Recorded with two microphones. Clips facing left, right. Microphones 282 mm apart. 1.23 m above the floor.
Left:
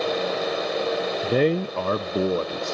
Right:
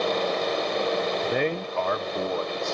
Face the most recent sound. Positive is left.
turn(degrees=35)  # may be behind; listen again after turning